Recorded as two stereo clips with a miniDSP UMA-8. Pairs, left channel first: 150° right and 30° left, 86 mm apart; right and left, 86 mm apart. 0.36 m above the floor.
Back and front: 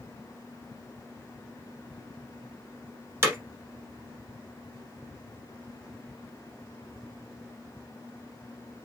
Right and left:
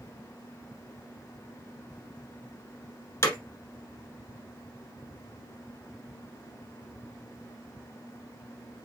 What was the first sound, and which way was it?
Hammering, 30° right.